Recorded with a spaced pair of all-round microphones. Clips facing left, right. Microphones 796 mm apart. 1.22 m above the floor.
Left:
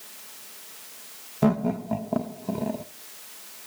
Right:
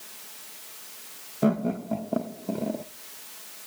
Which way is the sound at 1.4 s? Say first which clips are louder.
Left 1 dB; 35° left (ahead or behind).